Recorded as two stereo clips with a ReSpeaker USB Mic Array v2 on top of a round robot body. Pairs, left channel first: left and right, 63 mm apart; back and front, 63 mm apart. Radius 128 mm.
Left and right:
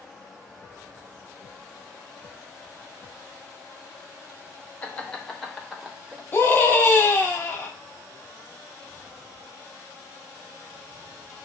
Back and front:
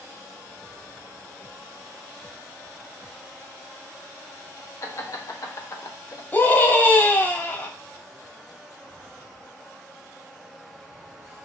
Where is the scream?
140° left, 1.6 m.